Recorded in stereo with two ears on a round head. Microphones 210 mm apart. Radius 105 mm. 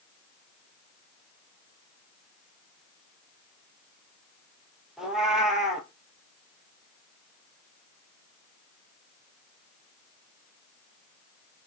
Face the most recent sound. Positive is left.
turn(degrees=0)  # may be behind; listen again after turning